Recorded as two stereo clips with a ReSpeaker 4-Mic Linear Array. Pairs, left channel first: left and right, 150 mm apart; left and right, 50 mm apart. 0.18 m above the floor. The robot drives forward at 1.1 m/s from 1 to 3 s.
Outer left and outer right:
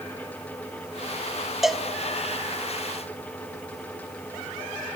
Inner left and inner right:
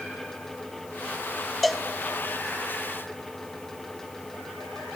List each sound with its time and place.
1.6 s a cowbell: centre (ahead or behind), 0.5 m